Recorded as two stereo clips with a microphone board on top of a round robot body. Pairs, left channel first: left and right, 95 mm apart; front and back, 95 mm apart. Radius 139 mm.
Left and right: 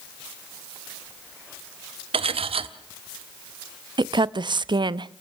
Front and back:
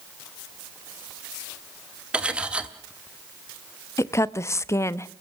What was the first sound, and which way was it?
Cutlery clinking, 100° right.